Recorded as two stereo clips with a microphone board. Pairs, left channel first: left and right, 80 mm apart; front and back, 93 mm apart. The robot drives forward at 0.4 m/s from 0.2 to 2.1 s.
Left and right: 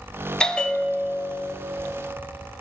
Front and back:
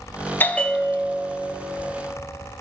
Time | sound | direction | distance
0.4 | a bell | 25° left | 0.6 m